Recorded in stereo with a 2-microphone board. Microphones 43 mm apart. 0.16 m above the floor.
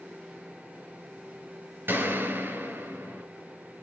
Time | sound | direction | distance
1.9 | a gunshot | 55° right (ahead or behind) | 3 m